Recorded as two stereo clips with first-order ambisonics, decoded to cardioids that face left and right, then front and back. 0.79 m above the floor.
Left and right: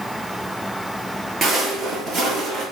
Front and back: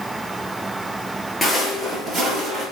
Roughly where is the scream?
No scream in this recording.